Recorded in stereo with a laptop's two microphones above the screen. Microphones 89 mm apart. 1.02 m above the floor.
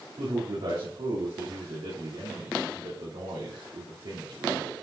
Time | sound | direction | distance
0.2 | a man speaking | 80° right | 2.5 m